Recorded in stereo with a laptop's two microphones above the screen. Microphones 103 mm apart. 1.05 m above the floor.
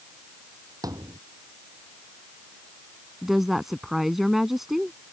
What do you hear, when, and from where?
0.8 s a thud: 35° right (ahead or behind)
3.2 s a woman speaking: centre (ahead or behind)